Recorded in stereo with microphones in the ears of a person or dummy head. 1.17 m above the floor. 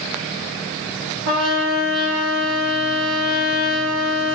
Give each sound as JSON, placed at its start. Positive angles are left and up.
{"t": 1.3, "sound": "a trumpet", "side_deg": -75, "distance_m": 3.0}